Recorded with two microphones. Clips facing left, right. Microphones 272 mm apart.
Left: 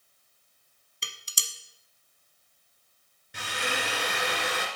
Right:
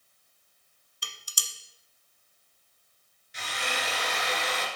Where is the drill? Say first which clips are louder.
Left 3 dB; 65° left (ahead or behind), 1.9 m.